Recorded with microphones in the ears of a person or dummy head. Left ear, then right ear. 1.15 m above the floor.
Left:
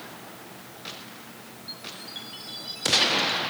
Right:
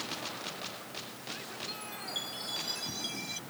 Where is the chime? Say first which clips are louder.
Left 3 dB; 30° right (ahead or behind).